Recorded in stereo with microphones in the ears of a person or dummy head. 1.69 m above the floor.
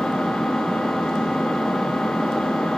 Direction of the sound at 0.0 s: 5° left (ahead or behind).